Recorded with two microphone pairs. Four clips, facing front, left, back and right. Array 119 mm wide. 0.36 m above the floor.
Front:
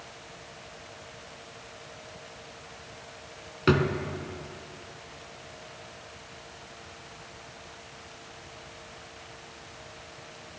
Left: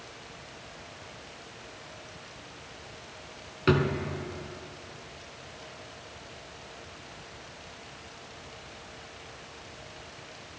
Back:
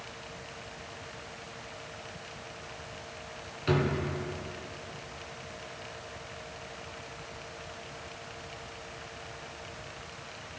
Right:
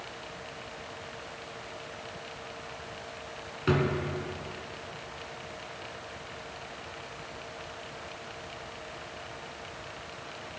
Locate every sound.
3.7 s a drawer: 15° left, 1.1 m